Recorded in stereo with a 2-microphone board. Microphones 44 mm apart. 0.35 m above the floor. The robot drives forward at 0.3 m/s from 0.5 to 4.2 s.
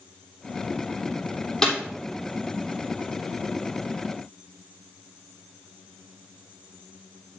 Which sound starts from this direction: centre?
A snare drum, at 1.6 s.